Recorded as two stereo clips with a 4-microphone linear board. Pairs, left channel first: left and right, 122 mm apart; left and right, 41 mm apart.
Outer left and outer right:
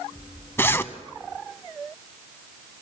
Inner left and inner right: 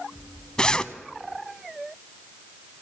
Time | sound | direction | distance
0.6 | a zipper | 20° left (ahead or behind) | 0.5 m